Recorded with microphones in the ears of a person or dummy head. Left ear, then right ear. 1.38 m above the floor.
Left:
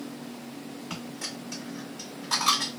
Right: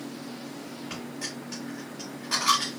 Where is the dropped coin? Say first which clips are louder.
Even; 15° left (ahead or behind), 2 m.